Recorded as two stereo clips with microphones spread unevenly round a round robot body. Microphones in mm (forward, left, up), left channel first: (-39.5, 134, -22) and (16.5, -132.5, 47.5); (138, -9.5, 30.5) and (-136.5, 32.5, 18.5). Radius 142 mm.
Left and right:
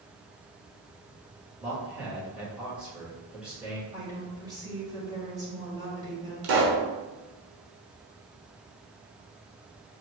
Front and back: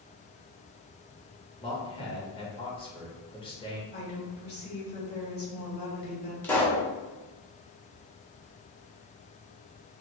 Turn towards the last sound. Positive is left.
turn(degrees=-90)